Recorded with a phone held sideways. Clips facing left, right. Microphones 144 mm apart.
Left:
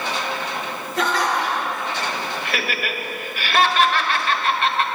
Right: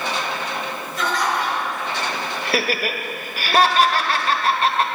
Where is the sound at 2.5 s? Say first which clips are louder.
Right 4 dB; 35° right (ahead or behind), 1.1 m.